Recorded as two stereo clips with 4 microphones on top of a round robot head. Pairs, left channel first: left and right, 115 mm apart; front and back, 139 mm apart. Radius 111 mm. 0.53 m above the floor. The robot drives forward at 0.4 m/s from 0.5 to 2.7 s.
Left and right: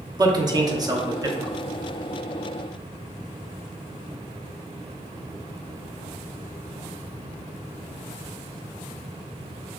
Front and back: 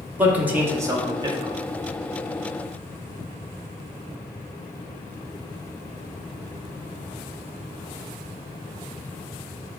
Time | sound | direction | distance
0.2 | a man speaking | 110° right | 0.9 m